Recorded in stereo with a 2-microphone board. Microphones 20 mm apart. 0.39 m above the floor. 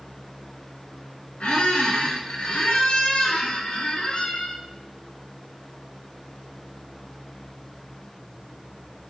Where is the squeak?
70° left (ahead or behind), 0.6 m.